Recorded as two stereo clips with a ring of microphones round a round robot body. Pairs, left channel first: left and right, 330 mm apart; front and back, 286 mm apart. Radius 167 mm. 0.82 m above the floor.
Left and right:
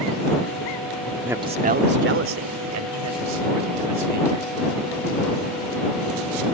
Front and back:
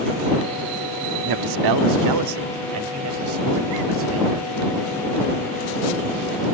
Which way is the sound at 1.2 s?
175° right.